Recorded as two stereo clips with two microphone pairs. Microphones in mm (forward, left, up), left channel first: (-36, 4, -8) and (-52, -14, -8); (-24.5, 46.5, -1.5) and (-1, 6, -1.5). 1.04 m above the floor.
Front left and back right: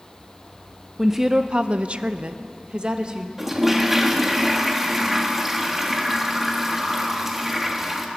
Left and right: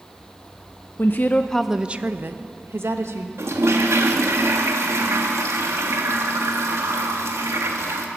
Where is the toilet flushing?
55° right, 1.6 m.